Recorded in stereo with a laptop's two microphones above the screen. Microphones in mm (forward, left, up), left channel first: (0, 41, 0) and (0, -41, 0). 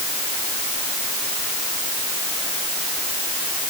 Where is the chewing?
No chewing in this recording.